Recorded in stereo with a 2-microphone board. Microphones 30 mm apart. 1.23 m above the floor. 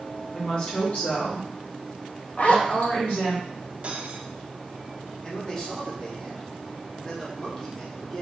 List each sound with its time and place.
0.3 s a woman speaking: 30° left (ahead or behind), 1.4 m; by 3.4 s 80° left, 2 m
2.4 s a zipper: 45° left (ahead or behind), 0.6 m
3.8 s cutlery clinking: 45° right (ahead or behind), 0.6 m
5.2 s a man speaking: 20° left (ahead or behind), 1.3 m